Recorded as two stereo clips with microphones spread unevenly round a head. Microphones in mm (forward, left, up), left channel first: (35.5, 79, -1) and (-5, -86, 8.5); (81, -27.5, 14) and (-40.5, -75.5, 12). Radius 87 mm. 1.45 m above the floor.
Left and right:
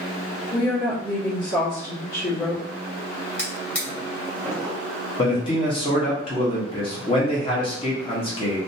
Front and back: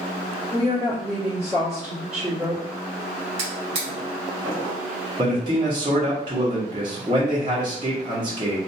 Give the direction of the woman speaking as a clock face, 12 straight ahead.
8 o'clock.